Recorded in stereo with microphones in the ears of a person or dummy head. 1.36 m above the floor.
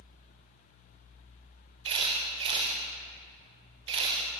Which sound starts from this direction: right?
A camera shutter, at 1.9 s.